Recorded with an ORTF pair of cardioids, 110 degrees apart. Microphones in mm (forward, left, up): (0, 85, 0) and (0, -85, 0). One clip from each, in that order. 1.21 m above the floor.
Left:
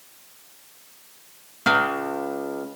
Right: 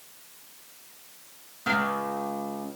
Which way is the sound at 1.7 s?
60° left.